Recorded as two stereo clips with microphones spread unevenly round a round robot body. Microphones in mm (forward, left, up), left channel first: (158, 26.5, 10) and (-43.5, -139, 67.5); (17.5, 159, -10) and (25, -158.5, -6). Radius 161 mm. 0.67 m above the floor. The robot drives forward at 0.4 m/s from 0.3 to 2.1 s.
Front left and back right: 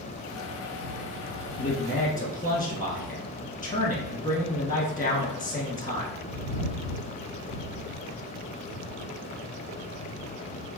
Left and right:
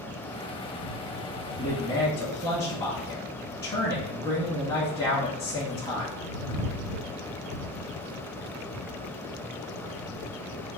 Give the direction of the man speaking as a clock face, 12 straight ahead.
11 o'clock.